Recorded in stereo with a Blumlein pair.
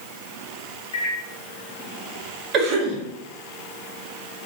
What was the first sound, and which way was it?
A microwave, 60° left.